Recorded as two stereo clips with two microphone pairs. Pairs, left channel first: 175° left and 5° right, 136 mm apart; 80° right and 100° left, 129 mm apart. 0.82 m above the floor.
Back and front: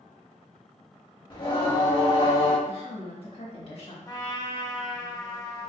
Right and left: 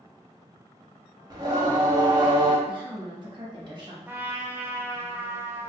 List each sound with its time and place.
1.3 s singing: 145° left, 0.7 m
2.7 s a woman speaking: 145° left, 1.1 m
4.1 s a trumpet: 165° left, 0.5 m